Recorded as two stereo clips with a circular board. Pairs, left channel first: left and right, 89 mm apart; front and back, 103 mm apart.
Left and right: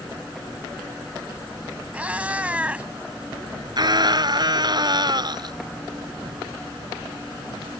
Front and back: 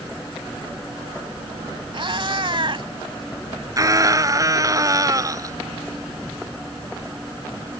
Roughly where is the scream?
Behind right.